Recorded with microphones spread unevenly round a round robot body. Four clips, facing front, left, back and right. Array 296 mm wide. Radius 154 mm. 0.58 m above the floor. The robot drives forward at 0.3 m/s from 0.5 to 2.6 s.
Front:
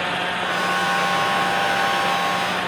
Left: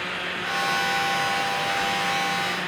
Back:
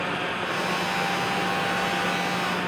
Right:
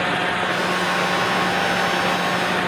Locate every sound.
Only background noise.